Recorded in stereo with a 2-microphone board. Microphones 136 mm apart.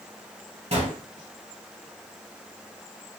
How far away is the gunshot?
About 1.6 m.